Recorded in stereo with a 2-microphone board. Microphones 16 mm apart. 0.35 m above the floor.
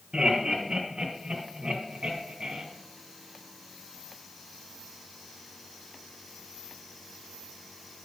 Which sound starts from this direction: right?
Laughter, at 0.1 s.